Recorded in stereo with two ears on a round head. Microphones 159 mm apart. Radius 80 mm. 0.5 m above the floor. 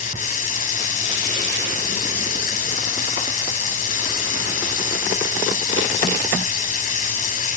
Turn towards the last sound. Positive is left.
turn(degrees=45)  # may be behind; listen again after turning